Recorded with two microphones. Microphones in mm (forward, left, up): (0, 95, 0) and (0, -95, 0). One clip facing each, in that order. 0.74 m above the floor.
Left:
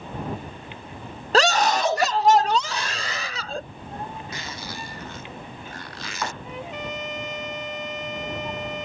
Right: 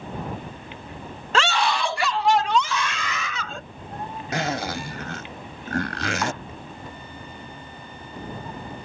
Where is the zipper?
85° right.